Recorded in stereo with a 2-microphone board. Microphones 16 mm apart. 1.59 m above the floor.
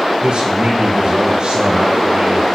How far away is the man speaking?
About 1.3 m.